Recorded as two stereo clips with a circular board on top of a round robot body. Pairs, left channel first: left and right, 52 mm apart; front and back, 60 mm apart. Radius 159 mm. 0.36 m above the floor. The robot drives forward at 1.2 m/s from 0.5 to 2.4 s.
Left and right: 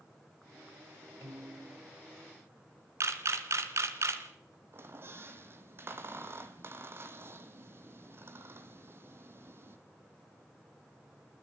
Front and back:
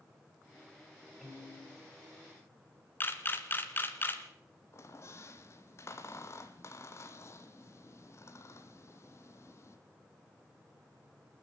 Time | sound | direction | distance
1.2 | a piano | 90° right | 9.5 m
3.0 | a camera shutter | 55° right | 2 m
4.7 | a squeak | 45° right | 1.3 m